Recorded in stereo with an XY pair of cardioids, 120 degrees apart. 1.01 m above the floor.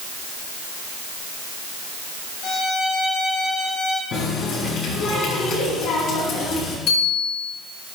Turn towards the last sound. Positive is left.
turn(degrees=65)